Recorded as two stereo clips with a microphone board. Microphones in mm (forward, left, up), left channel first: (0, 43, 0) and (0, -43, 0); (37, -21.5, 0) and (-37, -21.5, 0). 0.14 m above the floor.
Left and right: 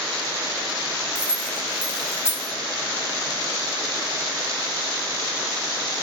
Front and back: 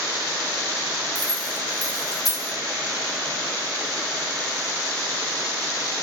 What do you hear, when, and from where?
1.1 s keys jangling: 30° left, 5.5 m